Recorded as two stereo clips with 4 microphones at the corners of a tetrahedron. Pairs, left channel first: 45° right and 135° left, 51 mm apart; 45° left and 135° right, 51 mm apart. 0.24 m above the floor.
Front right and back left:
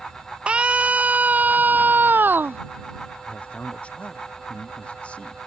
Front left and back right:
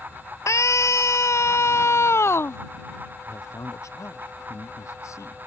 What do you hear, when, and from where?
0.5 s a scream: 65° left; by 2.6 s 85° left
3.3 s a man speaking: 20° left